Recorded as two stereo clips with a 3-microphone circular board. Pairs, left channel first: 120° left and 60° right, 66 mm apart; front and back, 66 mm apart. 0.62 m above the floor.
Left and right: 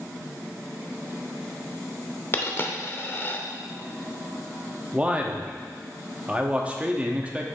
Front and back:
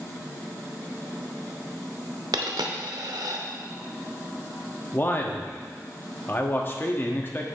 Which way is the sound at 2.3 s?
175° left.